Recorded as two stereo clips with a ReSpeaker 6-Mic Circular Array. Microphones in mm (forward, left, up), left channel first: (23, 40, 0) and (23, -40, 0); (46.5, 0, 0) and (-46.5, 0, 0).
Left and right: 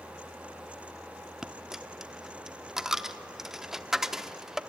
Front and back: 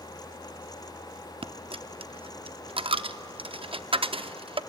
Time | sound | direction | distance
1.4 | a dropped coin | 175° right | 0.7 m